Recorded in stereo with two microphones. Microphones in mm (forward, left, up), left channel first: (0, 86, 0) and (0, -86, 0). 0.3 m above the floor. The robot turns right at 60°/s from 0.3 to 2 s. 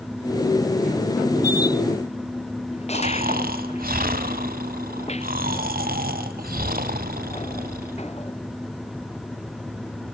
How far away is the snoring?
About 1.1 m.